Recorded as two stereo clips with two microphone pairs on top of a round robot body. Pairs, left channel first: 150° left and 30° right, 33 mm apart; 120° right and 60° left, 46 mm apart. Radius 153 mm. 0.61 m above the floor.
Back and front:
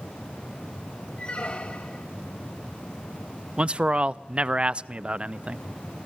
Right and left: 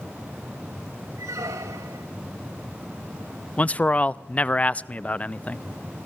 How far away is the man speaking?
About 0.6 m.